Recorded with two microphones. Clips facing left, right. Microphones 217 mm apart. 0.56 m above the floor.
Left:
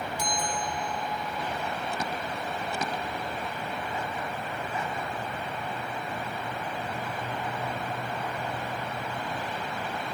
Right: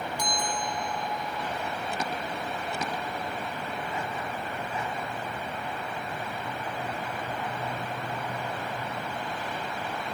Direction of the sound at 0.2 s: 5° left (ahead or behind).